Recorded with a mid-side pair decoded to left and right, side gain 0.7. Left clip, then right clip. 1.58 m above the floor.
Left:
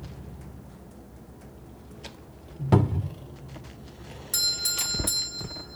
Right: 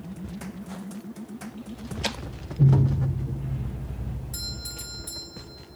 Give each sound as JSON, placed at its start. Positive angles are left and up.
{"t": 2.7, "sound": "a cupboard door", "azimuth_deg": 70, "distance_m": 1.6}
{"t": 4.3, "sound": "a doorbell", "azimuth_deg": 50, "distance_m": 2.5}